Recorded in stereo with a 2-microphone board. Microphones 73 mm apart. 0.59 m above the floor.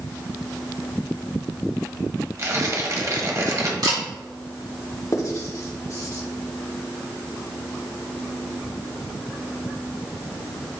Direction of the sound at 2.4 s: 45° right (ahead or behind).